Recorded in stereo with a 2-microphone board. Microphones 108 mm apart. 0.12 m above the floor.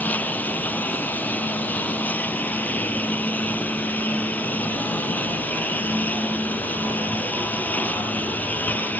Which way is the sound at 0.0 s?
15° left (ahead or behind).